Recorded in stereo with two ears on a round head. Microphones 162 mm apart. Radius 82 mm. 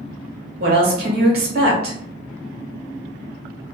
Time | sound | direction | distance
0.6 | a woman speaking | 55° right (ahead or behind) | 1.4 m